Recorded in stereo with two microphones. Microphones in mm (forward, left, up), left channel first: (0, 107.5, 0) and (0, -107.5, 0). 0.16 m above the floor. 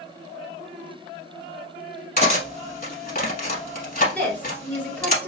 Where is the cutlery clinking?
40° left (ahead or behind), 0.8 m.